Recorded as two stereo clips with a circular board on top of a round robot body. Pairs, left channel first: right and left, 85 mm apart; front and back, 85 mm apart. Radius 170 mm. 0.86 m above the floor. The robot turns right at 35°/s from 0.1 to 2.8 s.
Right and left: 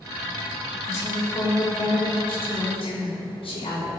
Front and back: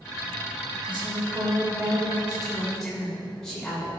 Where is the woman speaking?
155° right, 3.5 m; by 3.9 s 85° right, 3.5 m.